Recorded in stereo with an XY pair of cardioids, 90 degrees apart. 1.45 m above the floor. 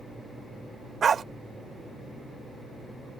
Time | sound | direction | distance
1.0 | a dog barking | 50° right | ?